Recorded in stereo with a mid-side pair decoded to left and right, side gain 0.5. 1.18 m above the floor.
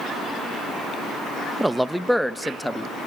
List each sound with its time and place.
1.6 s a man speaking: 10° right, 0.8 m; by 2.9 s 5° left, 1.6 m